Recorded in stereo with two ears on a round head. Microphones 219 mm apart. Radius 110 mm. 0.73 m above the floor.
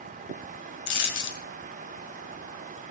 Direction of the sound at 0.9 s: 50° left (ahead or behind).